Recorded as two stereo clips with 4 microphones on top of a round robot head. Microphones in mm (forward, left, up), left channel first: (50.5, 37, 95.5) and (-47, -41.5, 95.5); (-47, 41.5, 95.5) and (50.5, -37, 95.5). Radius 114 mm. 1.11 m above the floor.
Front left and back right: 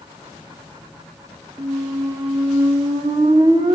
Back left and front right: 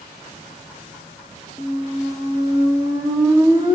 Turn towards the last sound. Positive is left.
turn(degrees=-100)